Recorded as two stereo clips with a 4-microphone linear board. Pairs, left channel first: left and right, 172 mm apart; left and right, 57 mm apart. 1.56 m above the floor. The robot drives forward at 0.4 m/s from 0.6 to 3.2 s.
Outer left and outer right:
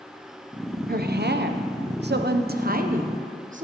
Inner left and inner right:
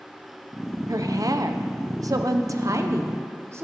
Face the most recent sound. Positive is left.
turn(degrees=-50)  # may be behind; listen again after turning